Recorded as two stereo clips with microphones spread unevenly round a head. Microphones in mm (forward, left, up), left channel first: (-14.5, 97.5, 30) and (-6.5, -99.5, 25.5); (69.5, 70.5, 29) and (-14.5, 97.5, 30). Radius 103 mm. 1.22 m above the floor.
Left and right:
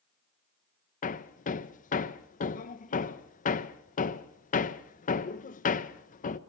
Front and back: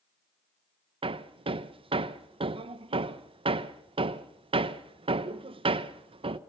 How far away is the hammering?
About 0.7 m.